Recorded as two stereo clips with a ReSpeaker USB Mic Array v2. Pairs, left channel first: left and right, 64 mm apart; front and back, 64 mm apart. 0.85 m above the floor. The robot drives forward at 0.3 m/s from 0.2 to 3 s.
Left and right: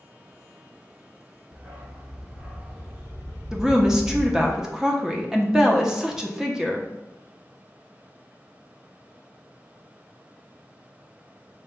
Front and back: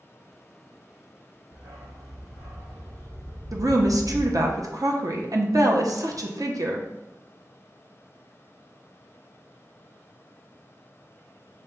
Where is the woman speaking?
170° right, 0.7 m.